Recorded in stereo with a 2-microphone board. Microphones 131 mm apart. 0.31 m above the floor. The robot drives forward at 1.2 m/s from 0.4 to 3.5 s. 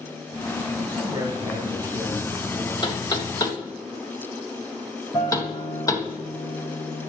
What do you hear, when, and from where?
0.8 s a man speaking: 40° right (ahead or behind), 1.4 m; by 2.7 s 15° right (ahead or behind), 3.5 m
2.8 s knocking: 40° left (ahead or behind), 1.1 m; by 6.1 s 30° left (ahead or behind), 1.4 m
5.1 s a guitar: 25° left (ahead or behind), 5.5 m